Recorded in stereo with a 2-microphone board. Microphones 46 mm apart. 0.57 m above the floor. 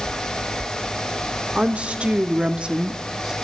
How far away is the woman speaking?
About 1.3 m.